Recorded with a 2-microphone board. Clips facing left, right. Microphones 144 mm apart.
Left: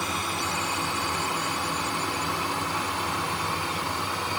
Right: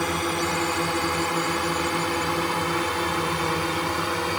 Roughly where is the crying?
I don't hear crying.